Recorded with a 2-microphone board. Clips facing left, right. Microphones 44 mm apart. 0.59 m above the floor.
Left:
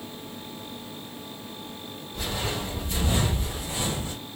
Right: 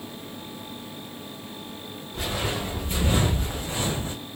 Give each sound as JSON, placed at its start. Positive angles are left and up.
{"t": 2.1, "sound": "footsteps", "side_deg": -40, "distance_m": 3.0}